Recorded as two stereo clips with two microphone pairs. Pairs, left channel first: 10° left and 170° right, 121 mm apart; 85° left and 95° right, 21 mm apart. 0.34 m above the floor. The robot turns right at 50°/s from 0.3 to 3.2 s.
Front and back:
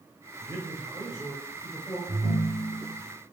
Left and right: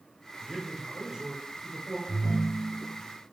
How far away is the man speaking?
About 1.0 m.